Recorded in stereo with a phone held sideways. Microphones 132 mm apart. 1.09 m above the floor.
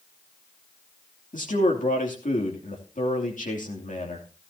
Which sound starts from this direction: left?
A man speaking, at 1.3 s.